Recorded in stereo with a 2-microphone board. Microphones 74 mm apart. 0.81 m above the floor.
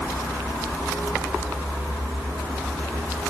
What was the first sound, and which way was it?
Only background noise.